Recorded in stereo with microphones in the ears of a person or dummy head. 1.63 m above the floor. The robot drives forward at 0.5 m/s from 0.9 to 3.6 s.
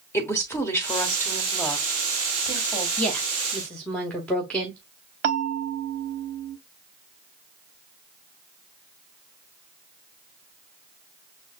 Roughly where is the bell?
Right.